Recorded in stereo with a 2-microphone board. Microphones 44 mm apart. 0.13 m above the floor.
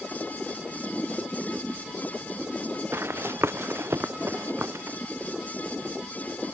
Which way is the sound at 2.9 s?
75° right (ahead or behind).